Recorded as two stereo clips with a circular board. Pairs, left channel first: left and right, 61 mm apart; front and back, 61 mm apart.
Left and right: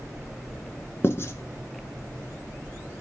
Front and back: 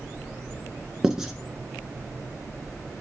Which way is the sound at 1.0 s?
105° left.